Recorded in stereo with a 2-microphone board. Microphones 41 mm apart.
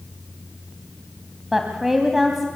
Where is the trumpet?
I don't hear a trumpet.